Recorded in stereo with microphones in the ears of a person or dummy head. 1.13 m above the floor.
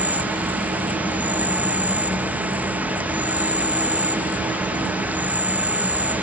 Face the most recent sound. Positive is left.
turn(degrees=-5)  # may be behind; listen again after turning